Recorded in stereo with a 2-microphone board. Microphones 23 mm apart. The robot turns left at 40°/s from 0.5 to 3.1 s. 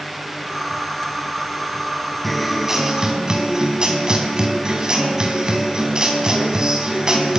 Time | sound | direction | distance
2.2 | a guitar | 5° left | 5 m